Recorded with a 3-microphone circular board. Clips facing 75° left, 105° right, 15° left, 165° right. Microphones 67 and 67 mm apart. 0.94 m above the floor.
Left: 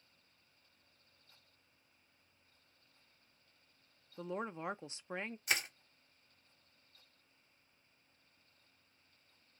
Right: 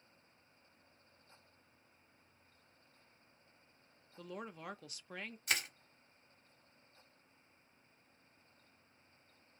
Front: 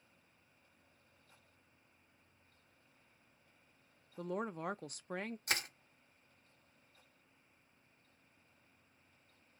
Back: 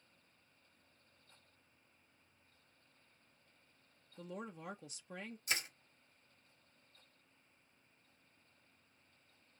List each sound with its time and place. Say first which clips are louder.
4.2 s a woman speaking: left 6 dB, front 8 dB; 15° left, 0.5 m
5.5 s crushing: left 1 dB, front 1 dB; 10° right, 1.6 m